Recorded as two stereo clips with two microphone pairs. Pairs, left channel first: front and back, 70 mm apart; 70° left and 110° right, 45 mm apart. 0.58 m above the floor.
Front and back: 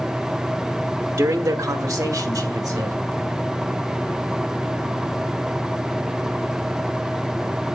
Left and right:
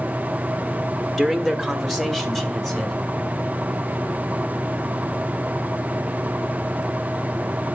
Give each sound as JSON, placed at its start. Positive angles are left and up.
{"t": 1.2, "sound": "a man speaking", "azimuth_deg": 150, "distance_m": 1.0}